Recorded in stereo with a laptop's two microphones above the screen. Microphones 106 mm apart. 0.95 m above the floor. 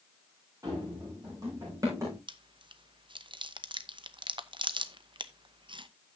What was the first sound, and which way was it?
Running footsteps, 35° right (ahead or behind).